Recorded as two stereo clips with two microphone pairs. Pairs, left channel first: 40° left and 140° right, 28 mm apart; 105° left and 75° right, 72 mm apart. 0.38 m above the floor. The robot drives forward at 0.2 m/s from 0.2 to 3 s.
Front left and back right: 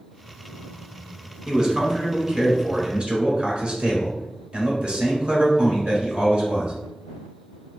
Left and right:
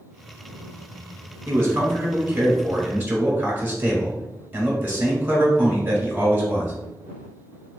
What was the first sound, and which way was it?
A man speaking, 110° right.